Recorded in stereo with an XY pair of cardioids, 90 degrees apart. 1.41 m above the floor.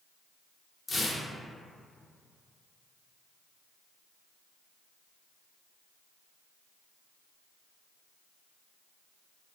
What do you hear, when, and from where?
0.9 s tearing paper: 40° left, 0.6 m